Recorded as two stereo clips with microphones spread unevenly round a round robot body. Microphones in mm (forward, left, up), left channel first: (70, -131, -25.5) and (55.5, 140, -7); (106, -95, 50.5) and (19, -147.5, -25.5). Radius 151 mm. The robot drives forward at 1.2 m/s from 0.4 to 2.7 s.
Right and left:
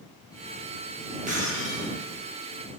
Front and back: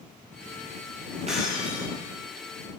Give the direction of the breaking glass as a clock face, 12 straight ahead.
7 o'clock.